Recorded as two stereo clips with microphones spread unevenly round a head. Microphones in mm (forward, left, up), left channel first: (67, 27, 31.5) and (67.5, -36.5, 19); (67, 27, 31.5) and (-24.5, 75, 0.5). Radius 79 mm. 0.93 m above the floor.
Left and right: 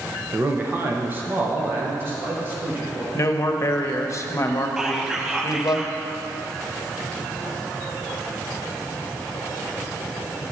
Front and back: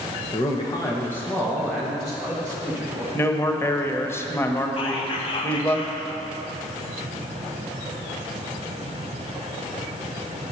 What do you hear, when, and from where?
0.3 s a man speaking: 80° right, 1.0 m; by 3.0 s 145° right, 1.8 m
3.1 s a man speaking: 45° left, 1.0 m
4.8 s whispering: 35° right, 0.8 m